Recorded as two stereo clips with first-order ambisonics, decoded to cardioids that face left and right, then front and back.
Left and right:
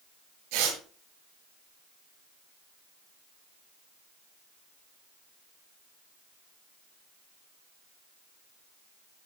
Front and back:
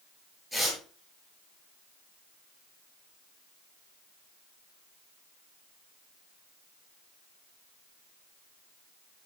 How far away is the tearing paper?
About 8.5 m.